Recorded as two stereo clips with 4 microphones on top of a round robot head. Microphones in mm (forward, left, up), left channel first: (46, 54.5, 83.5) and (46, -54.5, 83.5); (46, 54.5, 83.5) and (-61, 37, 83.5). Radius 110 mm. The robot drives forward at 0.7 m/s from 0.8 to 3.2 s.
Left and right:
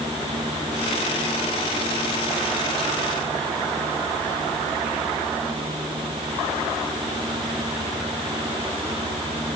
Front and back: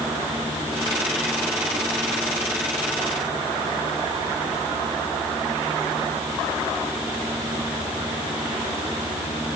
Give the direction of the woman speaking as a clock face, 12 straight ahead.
I don't hear a woman speaking.